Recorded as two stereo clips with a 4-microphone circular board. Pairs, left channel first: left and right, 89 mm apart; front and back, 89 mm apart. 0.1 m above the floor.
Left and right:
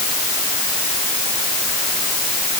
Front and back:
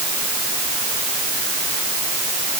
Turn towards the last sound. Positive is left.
No sound to turn to.